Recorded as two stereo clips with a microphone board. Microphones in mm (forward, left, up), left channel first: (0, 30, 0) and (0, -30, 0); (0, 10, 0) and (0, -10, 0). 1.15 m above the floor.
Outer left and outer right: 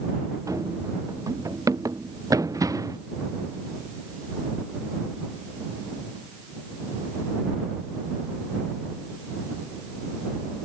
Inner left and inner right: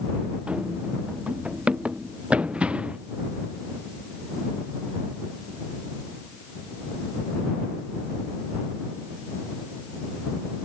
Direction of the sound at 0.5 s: 75° right (ahead or behind).